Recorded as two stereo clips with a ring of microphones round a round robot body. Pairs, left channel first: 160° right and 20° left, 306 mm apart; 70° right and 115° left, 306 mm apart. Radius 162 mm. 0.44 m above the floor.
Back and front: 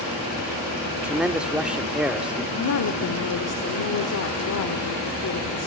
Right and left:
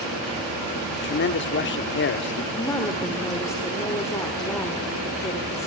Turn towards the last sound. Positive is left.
turn(degrees=-145)